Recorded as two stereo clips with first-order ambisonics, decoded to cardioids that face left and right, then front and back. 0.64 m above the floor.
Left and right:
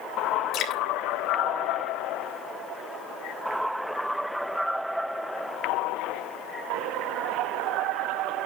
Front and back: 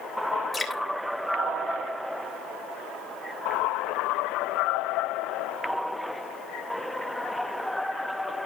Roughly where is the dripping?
Left.